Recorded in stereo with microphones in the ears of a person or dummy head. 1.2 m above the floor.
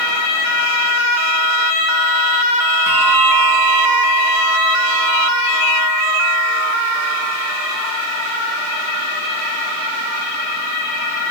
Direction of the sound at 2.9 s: 80° left.